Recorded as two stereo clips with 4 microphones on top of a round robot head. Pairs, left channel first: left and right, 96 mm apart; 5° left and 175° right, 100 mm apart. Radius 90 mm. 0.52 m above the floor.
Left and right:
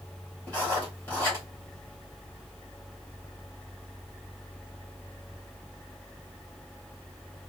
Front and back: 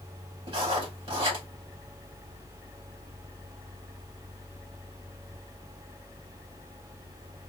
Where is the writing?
160° left, 2.5 m.